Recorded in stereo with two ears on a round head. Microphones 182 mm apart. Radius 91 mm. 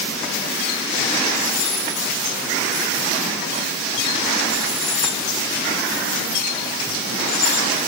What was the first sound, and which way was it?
Only background noise.